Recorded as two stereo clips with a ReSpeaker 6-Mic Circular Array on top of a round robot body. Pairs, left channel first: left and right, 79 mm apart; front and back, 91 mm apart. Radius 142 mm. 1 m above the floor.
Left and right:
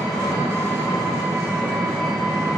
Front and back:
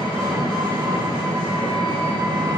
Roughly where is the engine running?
Ahead.